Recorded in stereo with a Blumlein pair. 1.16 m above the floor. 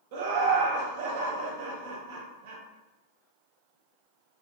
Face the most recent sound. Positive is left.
turn(degrees=-50)